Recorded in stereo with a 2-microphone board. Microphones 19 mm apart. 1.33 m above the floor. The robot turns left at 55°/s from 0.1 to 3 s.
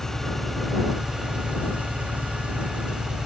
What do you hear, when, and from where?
0.0 s an engine running: 25° left; by 3.2 s 135° right